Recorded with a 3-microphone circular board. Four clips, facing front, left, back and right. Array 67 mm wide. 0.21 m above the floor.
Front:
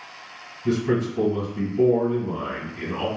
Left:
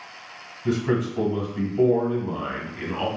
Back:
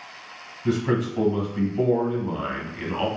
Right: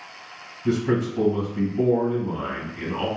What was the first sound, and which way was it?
A man speaking, 160° left.